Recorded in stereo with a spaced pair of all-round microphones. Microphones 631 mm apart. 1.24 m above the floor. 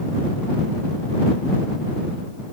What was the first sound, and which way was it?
Only background noise.